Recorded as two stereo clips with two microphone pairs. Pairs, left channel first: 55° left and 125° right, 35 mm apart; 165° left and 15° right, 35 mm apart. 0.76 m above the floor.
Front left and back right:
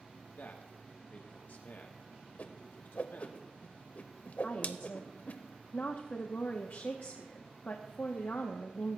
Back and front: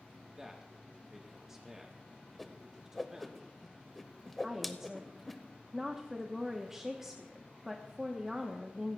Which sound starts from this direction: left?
A whoosh, at 2.4 s.